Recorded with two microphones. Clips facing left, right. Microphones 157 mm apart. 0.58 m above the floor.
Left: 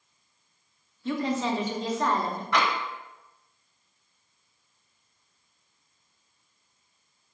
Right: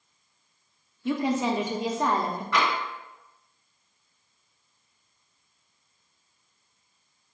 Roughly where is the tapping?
Left.